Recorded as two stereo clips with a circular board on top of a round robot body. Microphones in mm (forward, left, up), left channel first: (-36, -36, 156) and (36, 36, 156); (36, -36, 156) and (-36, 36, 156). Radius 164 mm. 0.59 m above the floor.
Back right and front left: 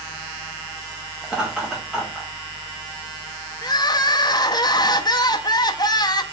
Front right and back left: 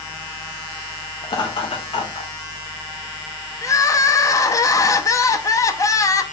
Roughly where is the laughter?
Ahead right.